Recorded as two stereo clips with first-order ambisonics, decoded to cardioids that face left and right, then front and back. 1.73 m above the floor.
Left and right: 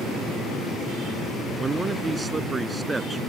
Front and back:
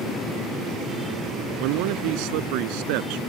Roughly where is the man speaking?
Behind.